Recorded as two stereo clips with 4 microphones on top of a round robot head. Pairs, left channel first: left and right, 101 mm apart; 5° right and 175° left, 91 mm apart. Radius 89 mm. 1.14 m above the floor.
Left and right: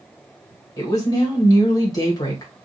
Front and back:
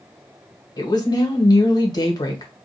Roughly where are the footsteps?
No footsteps in this recording.